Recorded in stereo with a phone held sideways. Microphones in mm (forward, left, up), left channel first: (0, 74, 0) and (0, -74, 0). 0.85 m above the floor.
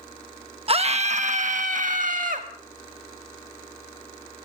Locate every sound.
0.7 s a scream: 40° right (ahead or behind), 0.8 m; by 2.5 s 65° right (ahead or behind), 1.8 m